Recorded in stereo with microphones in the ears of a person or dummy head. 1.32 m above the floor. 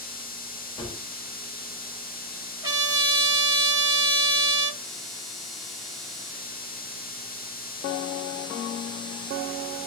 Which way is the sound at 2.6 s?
20° right (ahead or behind).